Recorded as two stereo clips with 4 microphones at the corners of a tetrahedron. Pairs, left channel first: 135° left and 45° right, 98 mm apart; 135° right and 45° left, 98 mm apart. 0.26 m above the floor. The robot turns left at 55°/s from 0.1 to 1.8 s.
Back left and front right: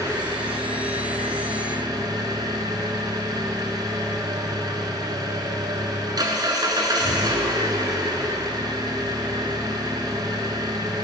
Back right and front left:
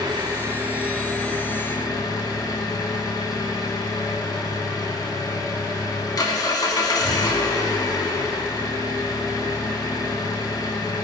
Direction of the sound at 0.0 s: 5° left.